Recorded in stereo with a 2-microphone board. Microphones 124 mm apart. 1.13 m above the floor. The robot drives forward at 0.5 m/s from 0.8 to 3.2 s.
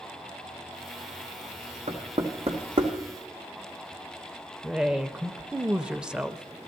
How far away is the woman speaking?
About 0.6 m.